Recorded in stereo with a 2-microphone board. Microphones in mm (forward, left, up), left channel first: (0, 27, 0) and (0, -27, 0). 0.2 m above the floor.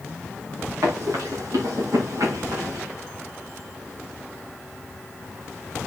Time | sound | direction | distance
0.8 | running footsteps | 90° right | 8.5 m